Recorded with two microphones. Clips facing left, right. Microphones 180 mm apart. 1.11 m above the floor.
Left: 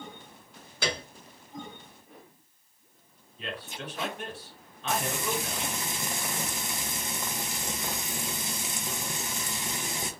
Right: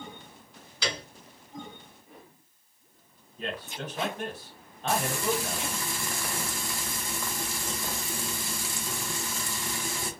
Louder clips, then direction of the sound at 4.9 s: Right 3 dB; 20° left (ahead or behind).